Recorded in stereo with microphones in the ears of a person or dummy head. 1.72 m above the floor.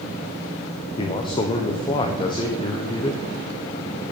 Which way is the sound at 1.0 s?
25° left (ahead or behind).